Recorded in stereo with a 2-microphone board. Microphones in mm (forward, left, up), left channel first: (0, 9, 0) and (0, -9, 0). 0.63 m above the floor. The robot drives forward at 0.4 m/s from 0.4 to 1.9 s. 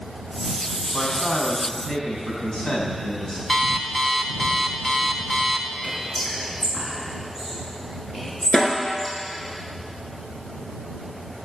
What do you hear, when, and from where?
0.9 s a man speaking: 40° left (ahead or behind), 4.5 m; by 3.4 s 45° left (ahead or behind), 4 m
3.5 s an alarm clock: 5° left (ahead or behind), 1.1 m
5.8 s whispering: 5° left (ahead or behind), 6.5 m
8.5 s a snare drum: 50° left (ahead or behind), 2 m